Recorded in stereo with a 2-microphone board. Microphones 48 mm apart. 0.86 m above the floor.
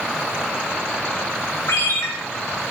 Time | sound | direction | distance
1.7 | a ringtone | 85° left | 2.0 m